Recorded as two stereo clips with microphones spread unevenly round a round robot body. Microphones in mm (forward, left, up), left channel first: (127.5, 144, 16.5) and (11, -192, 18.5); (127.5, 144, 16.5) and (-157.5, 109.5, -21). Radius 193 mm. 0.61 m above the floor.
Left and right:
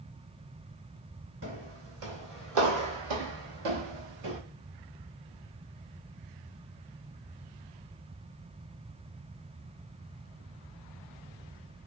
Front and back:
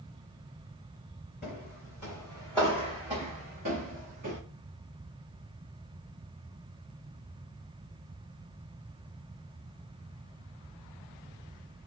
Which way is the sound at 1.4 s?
50° right.